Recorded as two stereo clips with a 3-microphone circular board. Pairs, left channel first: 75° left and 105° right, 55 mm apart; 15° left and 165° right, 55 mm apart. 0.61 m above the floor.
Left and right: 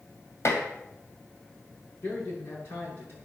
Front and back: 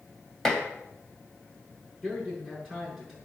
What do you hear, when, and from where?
0.5 s dishes clattering: 100° left, 2.5 m
2.0 s a man speaking: 110° left, 7.5 m